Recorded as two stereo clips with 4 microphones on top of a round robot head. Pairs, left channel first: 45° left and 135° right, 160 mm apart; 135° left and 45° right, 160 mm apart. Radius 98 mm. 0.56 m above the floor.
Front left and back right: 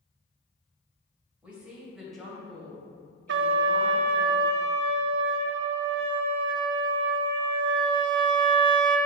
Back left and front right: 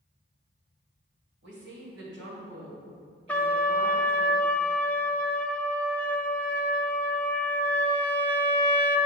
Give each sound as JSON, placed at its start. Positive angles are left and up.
{"t": 1.4, "sound": "a woman speaking", "azimuth_deg": -55, "distance_m": 2.5}
{"t": 3.3, "sound": "a trumpet", "azimuth_deg": -145, "distance_m": 0.6}